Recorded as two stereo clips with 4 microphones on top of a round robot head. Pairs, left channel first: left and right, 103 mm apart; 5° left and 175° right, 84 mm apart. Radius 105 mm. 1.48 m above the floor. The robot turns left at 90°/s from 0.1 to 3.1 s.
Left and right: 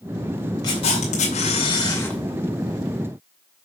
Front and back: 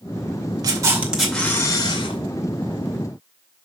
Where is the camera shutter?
150° left, 2 m; by 2.2 s 10° left, 2 m.